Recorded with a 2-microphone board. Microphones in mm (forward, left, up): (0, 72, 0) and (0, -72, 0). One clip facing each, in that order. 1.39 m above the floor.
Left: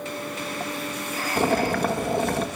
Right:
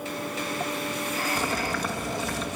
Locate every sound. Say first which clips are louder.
1.4 s boiling: left 7 dB; 50° left (ahead or behind), 1.8 m